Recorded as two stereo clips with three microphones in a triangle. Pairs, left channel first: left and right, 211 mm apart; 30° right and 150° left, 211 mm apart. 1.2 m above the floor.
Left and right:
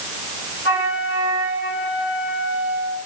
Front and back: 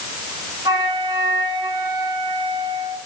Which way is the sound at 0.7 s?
85° left.